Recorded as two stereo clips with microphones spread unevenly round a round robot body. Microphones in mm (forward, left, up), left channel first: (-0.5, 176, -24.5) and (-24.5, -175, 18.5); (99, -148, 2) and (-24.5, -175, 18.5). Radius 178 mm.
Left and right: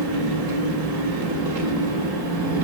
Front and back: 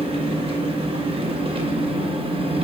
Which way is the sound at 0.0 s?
120° right.